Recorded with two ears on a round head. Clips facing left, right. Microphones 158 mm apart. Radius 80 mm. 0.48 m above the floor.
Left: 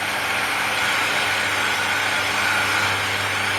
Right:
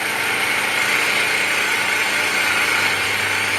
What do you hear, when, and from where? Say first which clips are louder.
0.0 s an engine running: right 1 dB; 80° right, 6 m